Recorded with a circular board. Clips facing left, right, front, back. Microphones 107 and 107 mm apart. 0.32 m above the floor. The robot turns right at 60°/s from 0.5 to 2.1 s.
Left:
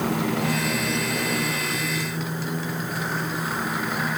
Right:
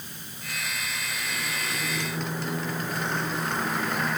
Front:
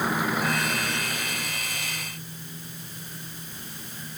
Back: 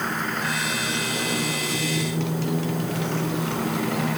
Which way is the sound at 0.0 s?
85° left.